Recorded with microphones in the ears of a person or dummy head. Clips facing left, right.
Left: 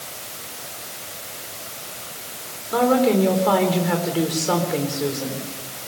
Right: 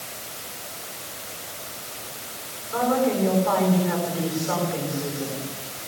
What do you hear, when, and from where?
2.7 s a woman speaking: 65° left (ahead or behind), 4.5 m